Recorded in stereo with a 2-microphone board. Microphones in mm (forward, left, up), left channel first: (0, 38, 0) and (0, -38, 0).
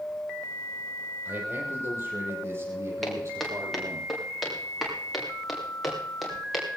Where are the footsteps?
5° left (ahead or behind), 6.5 m; by 6.7 s centre (ahead or behind), 10 m.